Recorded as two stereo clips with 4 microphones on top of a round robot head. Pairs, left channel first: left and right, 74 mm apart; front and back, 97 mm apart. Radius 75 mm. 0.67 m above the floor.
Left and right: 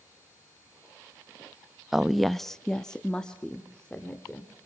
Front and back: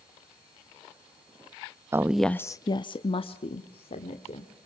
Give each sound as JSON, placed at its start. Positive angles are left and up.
{"t": 1.9, "sound": "a woman speaking", "azimuth_deg": -175, "distance_m": 0.6}